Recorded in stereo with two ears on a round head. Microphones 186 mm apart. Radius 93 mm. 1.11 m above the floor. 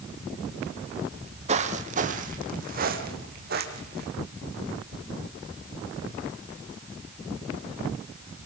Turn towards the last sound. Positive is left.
turn(degrees=-50)  # may be behind; listen again after turning